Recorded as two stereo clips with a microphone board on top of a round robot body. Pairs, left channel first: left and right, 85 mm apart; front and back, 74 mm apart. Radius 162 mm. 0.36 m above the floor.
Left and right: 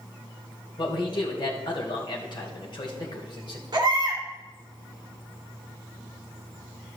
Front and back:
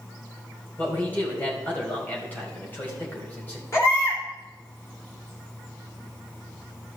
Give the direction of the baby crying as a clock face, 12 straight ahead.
2 o'clock.